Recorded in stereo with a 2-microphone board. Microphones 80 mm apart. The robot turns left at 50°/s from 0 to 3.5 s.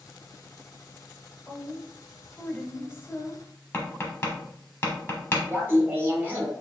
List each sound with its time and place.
1.5 s a woman speaking: 10° left (ahead or behind), 1.0 m; by 3.4 s 25° left (ahead or behind), 1.0 m
3.7 s tapping: 30° left (ahead or behind), 1.1 m
5.5 s laughter: 25° right (ahead or behind), 1.2 m